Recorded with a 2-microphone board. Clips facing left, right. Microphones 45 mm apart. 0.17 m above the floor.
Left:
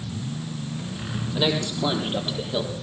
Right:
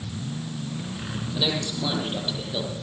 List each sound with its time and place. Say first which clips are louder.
1.4 s a man speaking: left 3 dB; 25° left (ahead or behind), 6.5 m; by 2.7 s 15° left (ahead or behind), 6 m